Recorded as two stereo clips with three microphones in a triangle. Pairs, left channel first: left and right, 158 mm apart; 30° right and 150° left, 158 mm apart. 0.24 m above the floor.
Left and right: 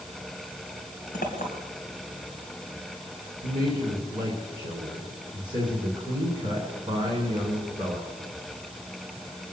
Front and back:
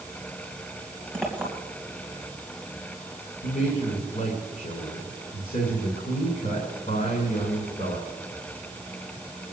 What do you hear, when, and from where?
1.1 s a clink: 55° left, 2.5 m
3.4 s a man speaking: 30° right, 3 m